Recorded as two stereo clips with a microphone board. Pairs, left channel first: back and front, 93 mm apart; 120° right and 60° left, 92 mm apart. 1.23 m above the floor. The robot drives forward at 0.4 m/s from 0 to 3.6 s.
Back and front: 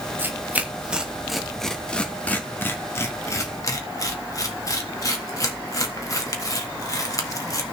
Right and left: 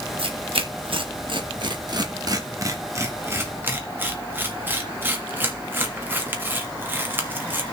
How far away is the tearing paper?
About 1.3 m.